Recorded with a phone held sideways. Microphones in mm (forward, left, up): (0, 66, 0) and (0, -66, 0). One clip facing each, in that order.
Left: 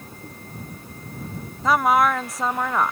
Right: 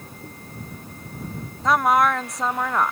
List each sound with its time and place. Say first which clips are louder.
1.6 s a woman speaking: even; centre (ahead or behind)